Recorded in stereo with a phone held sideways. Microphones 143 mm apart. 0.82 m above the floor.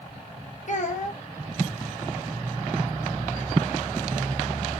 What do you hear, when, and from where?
0.7 s a child speaking: 60° left (ahead or behind), 0.8 m